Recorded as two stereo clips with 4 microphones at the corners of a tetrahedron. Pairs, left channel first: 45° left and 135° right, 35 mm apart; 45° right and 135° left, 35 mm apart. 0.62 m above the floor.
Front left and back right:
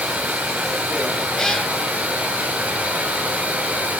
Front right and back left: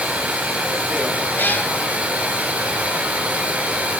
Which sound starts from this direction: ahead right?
A cat meowing, at 1.4 s.